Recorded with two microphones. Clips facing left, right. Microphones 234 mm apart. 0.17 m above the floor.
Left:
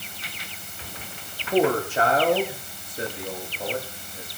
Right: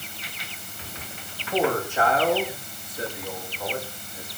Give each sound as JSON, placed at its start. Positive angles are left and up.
{"t": 1.5, "sound": "a man speaking", "side_deg": 35, "distance_m": 9.5}